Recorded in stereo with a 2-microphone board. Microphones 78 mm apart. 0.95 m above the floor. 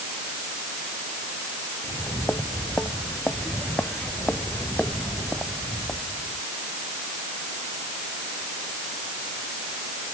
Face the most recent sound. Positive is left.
turn(degrees=10)  # may be behind; listen again after turning